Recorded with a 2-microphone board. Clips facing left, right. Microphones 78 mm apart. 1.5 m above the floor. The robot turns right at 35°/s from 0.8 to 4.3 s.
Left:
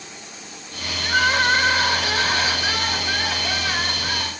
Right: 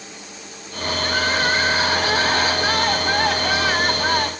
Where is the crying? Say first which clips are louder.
Left 3 dB; 175° left, 3.5 m; by 4.3 s 70° right, 3.5 m.